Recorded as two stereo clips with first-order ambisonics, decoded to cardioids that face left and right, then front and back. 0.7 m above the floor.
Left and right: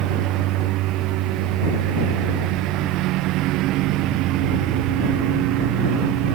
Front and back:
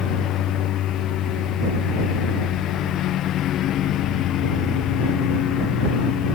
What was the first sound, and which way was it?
A lawn mower, 50° right.